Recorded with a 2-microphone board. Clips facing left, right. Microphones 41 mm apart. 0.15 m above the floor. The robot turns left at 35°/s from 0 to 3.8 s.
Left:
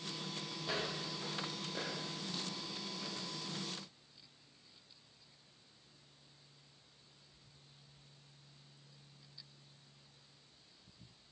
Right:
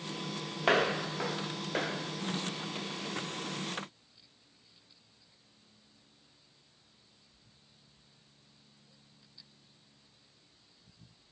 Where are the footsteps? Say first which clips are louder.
Right 13 dB; 65° right (ahead or behind), 1.1 m; by 3.3 s centre (ahead or behind), 4.5 m.